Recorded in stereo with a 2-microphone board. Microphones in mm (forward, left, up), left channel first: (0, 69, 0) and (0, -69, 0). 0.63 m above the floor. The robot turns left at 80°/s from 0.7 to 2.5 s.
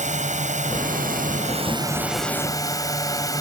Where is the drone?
60° right; by 3.4 s 155° left.